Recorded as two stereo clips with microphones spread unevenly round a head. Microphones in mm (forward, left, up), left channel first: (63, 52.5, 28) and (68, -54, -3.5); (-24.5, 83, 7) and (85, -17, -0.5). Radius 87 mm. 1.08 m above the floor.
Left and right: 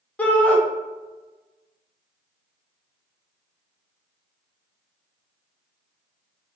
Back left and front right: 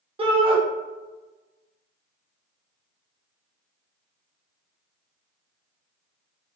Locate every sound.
0.2 s a shout: 10° left, 0.9 m